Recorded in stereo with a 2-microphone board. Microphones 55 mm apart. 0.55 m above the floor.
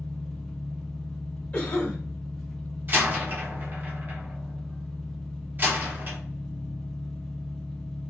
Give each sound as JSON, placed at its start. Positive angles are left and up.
{"t": 0.0, "sound": "an engine running", "side_deg": 10, "distance_m": 0.8}
{"t": 1.5, "sound": "a cough", "side_deg": 30, "distance_m": 1.5}
{"t": 2.9, "sound": "a door slam", "side_deg": -35, "distance_m": 0.9}